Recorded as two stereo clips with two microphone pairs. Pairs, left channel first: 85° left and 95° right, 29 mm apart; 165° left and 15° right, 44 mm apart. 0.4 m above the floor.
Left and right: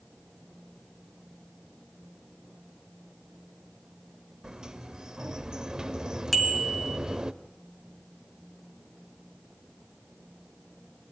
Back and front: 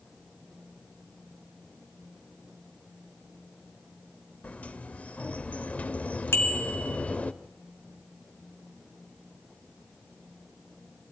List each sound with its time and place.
4.4 s a sliding door: 150° right, 0.9 m
6.3 s a bicycle bell: 170° left, 3.5 m